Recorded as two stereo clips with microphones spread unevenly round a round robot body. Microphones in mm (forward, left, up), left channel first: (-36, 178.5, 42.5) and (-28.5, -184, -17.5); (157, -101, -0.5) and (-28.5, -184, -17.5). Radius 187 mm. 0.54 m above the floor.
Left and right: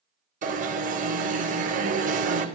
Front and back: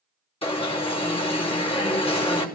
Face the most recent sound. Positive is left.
turn(degrees=-35)